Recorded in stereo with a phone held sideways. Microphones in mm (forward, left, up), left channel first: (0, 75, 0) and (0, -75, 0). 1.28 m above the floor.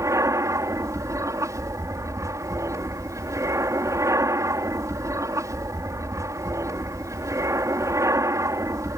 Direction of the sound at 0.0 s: 20° right (ahead or behind).